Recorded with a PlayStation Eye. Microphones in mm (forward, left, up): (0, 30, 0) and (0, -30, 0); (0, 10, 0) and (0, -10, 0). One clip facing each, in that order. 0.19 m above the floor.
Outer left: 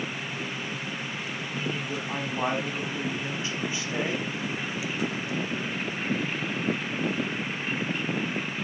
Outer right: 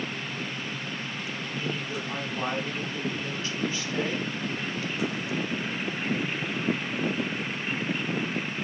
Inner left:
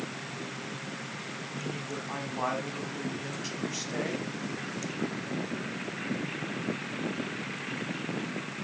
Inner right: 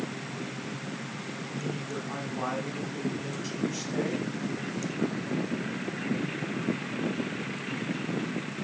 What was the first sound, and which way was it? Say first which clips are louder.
A man speaking: outer left 1 dB, inner right 2 dB; 20° left (ahead or behind).